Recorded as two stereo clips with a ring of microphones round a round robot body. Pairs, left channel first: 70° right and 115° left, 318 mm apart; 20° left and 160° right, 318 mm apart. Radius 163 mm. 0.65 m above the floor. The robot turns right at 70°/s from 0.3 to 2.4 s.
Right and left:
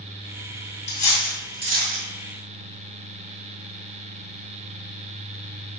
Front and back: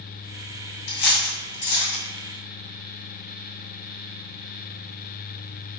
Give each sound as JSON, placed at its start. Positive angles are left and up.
{"t": 0.9, "sound": "cutlery clinking", "azimuth_deg": 0, "distance_m": 2.5}